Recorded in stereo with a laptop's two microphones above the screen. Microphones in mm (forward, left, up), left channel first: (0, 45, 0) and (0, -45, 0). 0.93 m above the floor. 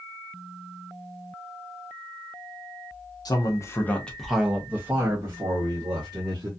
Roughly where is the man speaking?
Left.